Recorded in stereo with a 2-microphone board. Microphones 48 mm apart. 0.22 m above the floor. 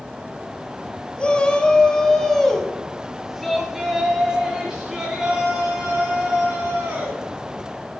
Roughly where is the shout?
Left.